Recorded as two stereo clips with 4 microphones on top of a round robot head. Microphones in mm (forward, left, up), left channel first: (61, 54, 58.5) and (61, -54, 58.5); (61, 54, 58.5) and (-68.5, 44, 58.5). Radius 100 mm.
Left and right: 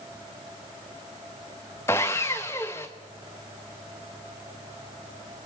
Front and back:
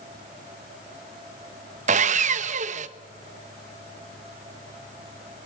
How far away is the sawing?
About 0.9 m.